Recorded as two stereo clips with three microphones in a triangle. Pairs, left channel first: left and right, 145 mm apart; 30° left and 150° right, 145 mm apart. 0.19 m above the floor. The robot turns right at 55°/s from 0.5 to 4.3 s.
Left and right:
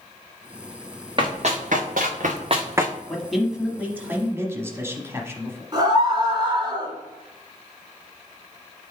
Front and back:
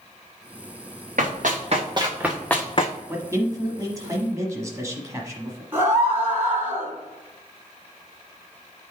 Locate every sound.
1.2 s running footsteps: 140° right, 2 m; by 2.9 s 5° right, 0.6 m
3.1 s a man speaking: 165° left, 1.0 m; by 5.6 s 125° right, 1.0 m
5.7 s a scream: 90° right, 1.8 m